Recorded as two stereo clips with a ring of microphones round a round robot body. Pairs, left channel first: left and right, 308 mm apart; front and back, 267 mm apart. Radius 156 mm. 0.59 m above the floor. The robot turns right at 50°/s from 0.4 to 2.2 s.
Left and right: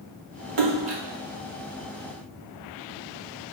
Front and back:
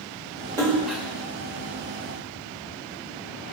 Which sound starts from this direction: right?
A splash, at 0.6 s.